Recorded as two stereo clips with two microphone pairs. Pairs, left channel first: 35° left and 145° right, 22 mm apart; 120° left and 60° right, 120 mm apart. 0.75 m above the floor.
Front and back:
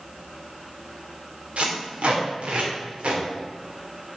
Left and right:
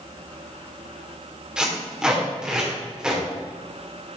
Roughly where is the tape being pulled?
Behind right.